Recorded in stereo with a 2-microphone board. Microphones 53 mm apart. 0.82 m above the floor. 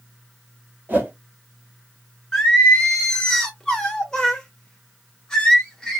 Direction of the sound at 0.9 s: 30° right (ahead or behind).